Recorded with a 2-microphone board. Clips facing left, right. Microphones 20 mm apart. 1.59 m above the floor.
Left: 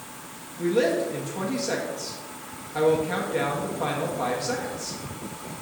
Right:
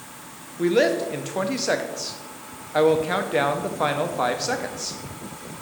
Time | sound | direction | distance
0.6 | a woman speaking | 50° right (ahead or behind) | 0.9 m